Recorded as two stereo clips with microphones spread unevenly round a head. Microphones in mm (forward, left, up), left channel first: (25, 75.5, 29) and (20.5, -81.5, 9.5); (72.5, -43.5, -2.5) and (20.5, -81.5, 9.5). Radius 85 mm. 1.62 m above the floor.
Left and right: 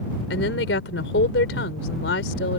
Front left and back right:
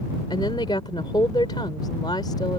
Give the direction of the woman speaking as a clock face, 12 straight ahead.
9 o'clock.